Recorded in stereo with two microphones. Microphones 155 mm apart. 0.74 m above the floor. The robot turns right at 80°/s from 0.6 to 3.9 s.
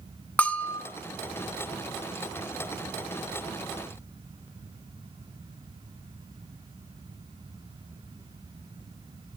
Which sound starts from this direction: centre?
A bell, at 0.4 s.